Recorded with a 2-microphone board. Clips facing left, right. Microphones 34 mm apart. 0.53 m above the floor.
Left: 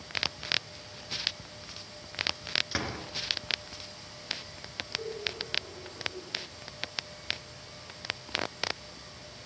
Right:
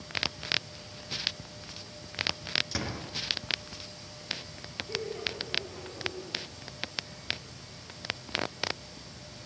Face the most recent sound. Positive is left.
turn(degrees=-65)  # may be behind; listen again after turning